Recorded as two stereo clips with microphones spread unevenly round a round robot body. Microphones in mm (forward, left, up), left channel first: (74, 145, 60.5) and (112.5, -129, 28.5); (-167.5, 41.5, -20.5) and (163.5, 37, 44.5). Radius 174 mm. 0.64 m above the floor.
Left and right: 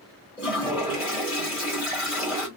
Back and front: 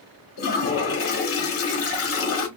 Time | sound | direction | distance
0.4 | a toilet flushing | 160° right | 1.2 m